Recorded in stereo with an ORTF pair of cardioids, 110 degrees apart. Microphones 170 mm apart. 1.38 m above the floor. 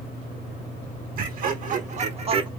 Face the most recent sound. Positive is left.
turn(degrees=-35)